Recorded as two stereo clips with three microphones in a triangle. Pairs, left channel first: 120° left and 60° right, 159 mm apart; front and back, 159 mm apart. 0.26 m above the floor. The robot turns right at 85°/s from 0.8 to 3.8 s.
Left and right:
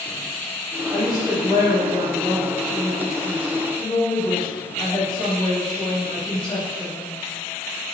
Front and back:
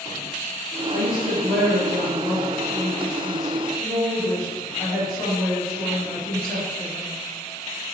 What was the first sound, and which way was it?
A woman speaking, 165° right.